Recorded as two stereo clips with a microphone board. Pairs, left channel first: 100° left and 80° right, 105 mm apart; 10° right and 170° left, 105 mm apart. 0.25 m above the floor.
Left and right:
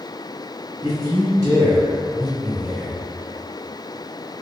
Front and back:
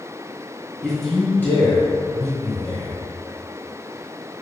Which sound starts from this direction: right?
A man speaking, at 0.8 s.